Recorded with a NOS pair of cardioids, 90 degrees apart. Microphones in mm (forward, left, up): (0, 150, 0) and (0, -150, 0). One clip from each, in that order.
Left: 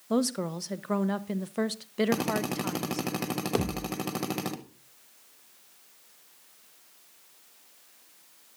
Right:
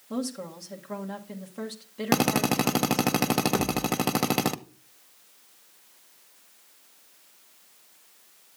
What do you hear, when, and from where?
0.1 s a woman speaking: 45° left, 0.9 m
2.1 s a drill: 40° right, 0.8 m
3.5 s a thud: 35° left, 2 m